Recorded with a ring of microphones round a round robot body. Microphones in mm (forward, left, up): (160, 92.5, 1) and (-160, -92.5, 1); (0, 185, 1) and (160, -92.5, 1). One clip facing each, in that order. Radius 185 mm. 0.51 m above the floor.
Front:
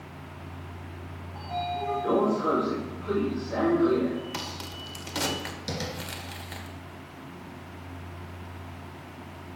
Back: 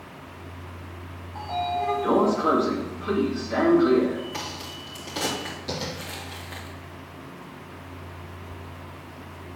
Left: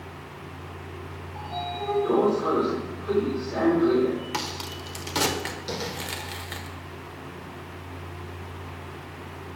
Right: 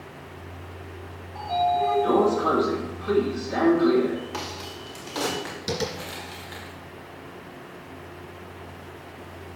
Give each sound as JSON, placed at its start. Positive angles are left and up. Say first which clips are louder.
{"t": 1.4, "sound": "a sliding door", "louder": "back 4 dB, right 10 dB", "azimuth_deg": -95, "distance_m": 2.5}
{"t": 4.3, "sound": "a crack", "louder": "back 1 dB, left 1 dB", "azimuth_deg": 80, "distance_m": 1.4}
{"t": 5.7, "sound": "tapping", "louder": "back 2 dB, right 6 dB", "azimuth_deg": -15, "distance_m": 2.5}